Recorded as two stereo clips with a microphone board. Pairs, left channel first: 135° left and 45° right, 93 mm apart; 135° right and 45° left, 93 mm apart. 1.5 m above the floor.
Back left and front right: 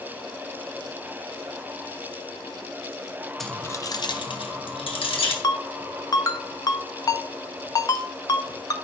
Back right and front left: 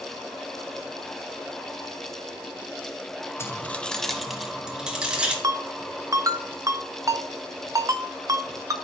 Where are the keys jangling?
140° right, 0.6 m; by 5.3 s 125° left, 2 m.